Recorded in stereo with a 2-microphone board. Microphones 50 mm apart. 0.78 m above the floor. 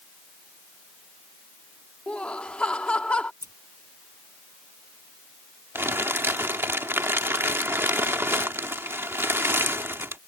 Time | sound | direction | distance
2.1 | laughter | 25° left (ahead or behind) | ?
3.4 | scissors | 75° right (ahead or behind) | ?
5.8 | crumpling | 60° right (ahead or behind) | ?